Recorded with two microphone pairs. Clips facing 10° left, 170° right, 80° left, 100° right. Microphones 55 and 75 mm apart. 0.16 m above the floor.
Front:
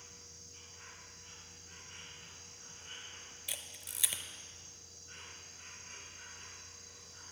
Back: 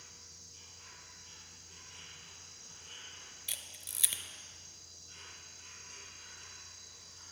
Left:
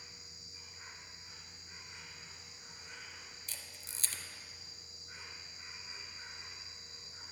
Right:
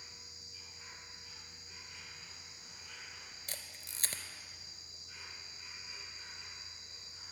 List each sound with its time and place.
0.0 s an insect: 50° left, 2.5 m
3.5 s a camera shutter: 75° right, 0.6 m